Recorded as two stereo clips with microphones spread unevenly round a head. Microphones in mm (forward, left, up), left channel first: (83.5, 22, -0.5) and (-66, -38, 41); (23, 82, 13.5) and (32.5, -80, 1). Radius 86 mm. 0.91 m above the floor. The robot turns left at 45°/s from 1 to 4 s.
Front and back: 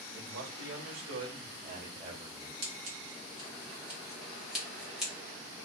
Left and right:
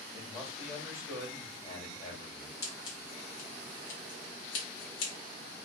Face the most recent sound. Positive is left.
turn(degrees=105)